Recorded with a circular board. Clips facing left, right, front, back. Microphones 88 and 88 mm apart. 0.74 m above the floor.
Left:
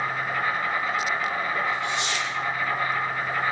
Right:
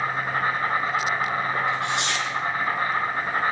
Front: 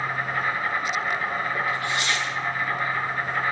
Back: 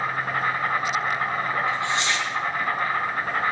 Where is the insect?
145° right, 4 m.